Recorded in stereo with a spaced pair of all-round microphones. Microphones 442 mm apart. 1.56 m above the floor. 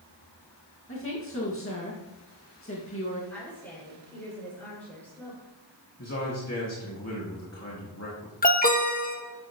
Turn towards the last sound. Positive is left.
turn(degrees=20)  # may be behind; listen again after turning